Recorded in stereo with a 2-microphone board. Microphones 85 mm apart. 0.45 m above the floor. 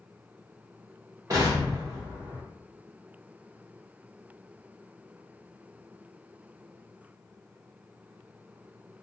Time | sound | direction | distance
1.3 | an explosion | 45° right (ahead or behind) | 1.4 m